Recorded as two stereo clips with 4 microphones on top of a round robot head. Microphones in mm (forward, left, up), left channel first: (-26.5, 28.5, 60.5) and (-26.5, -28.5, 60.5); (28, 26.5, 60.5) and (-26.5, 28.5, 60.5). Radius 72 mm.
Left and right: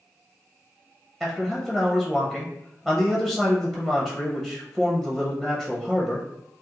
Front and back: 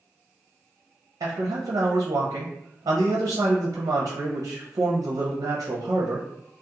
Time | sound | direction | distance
1.2 | a man speaking | 170° right | 0.5 m